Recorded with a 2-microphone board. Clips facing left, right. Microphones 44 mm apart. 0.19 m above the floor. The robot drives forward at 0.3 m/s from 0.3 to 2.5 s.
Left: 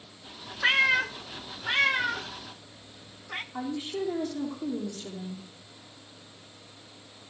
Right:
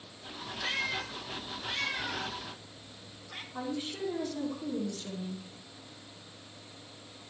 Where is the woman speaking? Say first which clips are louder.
Left 3 dB; 25° left (ahead or behind), 5.5 m.